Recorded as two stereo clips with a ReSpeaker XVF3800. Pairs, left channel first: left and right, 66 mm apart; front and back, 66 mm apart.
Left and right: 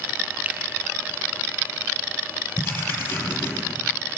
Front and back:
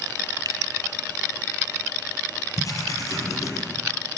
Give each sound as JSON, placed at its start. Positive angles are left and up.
{"t": 0.5, "sound": "a finger snap", "azimuth_deg": -155, "distance_m": 2.5}
{"t": 2.6, "sound": "writing", "azimuth_deg": 35, "distance_m": 7.0}